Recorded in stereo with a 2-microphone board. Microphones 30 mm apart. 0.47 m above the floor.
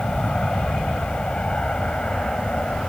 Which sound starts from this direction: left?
An aircraft, at 0.0 s.